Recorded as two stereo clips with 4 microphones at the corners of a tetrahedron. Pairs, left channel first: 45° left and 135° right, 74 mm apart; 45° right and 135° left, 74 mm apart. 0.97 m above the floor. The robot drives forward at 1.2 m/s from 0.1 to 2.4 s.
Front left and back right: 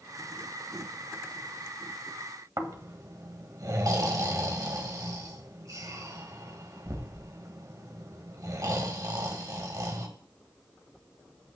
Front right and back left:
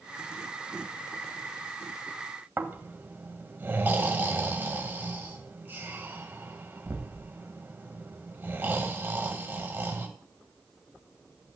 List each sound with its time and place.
2.6 s snoring: 165° right, 1.7 m